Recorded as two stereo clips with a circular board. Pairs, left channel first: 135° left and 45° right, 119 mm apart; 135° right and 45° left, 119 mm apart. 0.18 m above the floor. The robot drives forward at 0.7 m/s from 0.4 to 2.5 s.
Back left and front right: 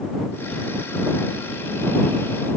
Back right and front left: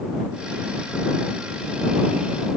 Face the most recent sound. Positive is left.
No sound to turn to.